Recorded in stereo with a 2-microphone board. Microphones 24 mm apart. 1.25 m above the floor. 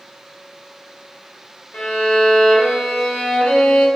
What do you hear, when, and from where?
1.7 s a violin: 55° left (ahead or behind), 0.6 m